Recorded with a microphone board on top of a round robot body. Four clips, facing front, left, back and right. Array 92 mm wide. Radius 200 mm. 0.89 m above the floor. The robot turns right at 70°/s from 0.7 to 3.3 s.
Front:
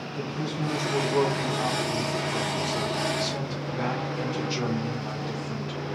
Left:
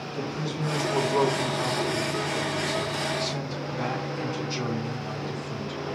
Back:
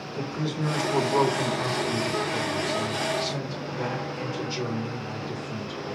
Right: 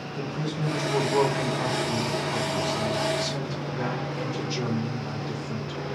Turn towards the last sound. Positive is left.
turn(degrees=-5)